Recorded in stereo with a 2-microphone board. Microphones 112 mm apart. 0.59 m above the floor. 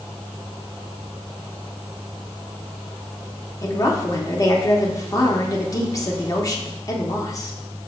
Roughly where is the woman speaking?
Left.